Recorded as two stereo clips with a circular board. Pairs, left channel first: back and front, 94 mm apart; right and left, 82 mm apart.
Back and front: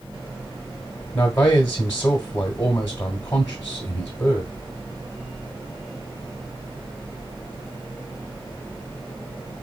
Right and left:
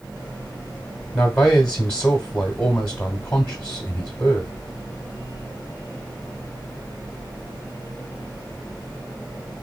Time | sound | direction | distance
1.1 | a man speaking | 150° right | 1.0 m